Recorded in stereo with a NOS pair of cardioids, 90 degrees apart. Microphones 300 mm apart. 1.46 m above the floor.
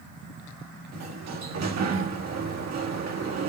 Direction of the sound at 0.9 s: 60° right.